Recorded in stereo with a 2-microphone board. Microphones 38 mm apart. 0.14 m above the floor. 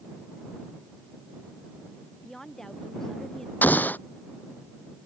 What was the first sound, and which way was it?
A woman speaking, 10° left (ahead or behind).